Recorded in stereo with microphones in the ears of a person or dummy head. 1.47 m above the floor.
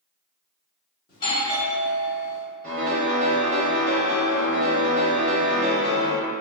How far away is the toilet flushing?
No toilet flushing in this recording.